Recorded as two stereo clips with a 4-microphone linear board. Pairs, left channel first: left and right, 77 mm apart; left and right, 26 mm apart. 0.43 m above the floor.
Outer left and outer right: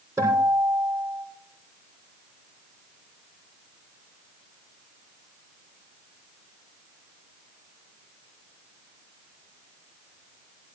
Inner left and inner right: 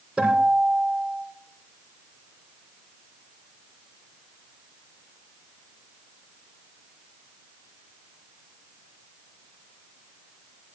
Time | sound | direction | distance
0.2 | a guitar | 30° right (ahead or behind) | 6.5 m